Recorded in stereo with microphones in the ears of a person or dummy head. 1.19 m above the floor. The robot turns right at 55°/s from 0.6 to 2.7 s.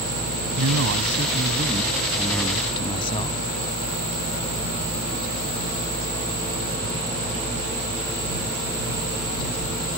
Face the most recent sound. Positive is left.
turn(degrees=25)